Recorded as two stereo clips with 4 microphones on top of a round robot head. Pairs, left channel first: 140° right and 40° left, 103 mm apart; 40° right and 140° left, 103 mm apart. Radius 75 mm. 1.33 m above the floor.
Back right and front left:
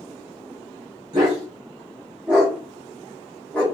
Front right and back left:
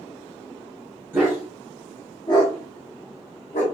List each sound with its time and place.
1.1 s a dog barking: 75° left, 0.9 m; by 3.6 s 60° right, 1.3 m